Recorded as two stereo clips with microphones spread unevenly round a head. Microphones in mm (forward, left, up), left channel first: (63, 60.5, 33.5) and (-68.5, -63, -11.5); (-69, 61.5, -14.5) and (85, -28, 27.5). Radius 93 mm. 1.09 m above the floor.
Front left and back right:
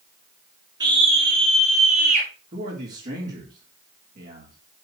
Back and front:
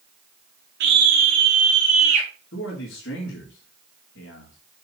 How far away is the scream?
About 1.1 m.